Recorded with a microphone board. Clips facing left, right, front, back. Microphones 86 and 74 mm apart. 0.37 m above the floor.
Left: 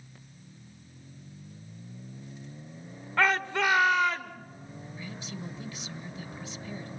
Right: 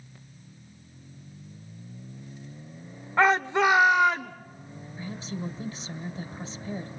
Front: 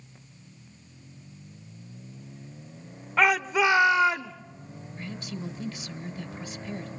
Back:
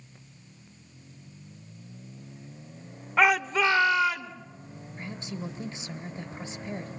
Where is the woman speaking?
130° right, 1.9 m.